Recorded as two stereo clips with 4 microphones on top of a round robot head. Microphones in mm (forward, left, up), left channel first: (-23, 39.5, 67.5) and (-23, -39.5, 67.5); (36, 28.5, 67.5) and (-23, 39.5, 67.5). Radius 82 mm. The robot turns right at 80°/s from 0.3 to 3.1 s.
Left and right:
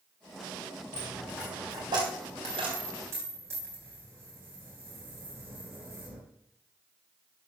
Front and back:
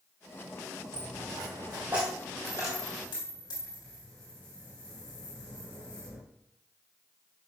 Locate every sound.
0.9 s a dropped coin: 160° left, 2.5 m; by 6.2 s 30° right, 2.5 m